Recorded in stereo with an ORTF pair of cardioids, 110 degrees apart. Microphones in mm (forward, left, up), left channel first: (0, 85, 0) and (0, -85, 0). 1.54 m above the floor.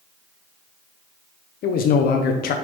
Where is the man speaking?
65° left, 0.9 m.